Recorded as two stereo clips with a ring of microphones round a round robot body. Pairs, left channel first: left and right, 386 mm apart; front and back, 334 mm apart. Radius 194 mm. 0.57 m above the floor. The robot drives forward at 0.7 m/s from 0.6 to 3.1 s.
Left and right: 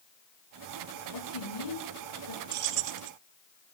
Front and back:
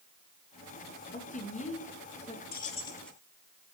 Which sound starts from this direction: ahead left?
A woman speaking, at 1.1 s.